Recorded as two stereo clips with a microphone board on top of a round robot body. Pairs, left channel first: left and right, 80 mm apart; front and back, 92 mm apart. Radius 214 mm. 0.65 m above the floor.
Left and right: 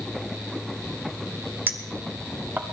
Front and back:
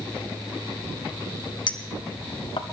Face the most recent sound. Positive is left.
turn(degrees=-25)